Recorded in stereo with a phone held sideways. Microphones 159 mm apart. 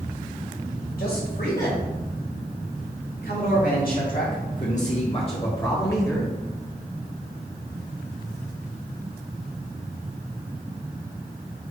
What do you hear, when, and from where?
1.0 s a man speaking: 75° left (ahead or behind), 4 m; by 6.3 s 10° left (ahead or behind), 1.8 m